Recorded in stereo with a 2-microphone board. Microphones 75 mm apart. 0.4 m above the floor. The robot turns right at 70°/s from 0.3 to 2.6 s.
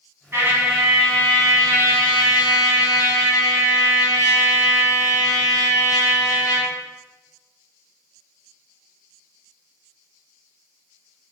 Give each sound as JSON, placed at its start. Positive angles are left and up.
{"t": 0.3, "sound": "a trumpet", "azimuth_deg": -40, "distance_m": 1.0}